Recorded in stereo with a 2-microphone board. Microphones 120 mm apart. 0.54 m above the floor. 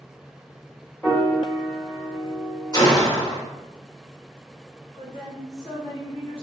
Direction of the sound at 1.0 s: 15° left (ahead or behind).